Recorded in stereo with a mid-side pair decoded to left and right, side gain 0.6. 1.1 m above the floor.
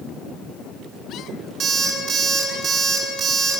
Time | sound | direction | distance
1.6 | an alarm clock | 45° right | 3 m